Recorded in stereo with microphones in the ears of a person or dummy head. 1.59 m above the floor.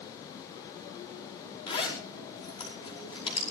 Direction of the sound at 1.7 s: 30° left (ahead or behind).